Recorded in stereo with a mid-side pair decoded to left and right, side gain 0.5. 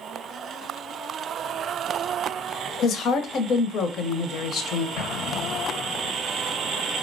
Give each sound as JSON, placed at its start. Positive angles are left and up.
{"t": 2.8, "sound": "a woman speaking", "azimuth_deg": 60, "distance_m": 0.6}
{"t": 5.0, "sound": "an explosion", "azimuth_deg": 65, "distance_m": 0.7}